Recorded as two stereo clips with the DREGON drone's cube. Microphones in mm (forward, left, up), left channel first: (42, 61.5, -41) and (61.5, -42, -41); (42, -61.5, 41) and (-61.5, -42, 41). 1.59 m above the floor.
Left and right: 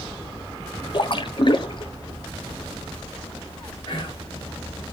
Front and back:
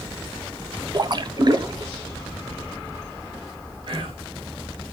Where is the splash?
135° left, 0.5 m.